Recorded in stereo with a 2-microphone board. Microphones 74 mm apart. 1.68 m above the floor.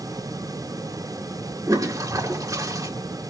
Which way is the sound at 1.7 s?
50° right (ahead or behind).